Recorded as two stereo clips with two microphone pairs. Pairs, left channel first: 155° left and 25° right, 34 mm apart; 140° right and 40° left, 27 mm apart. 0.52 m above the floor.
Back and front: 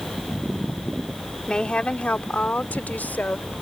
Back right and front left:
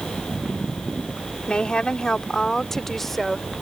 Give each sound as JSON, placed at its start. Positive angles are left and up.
{"t": 1.5, "sound": "a woman speaking", "azimuth_deg": -155}